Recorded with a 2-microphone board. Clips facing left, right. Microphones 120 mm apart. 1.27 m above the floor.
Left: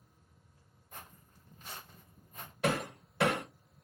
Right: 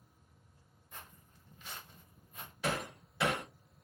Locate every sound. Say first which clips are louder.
0.9 s footsteps: left 2 dB; 45° left (ahead or behind), 2.5 m; by 2.5 s 40° left (ahead or behind), 1.6 m
2.6 s hammering: left 4 dB; 65° left (ahead or behind), 2.5 m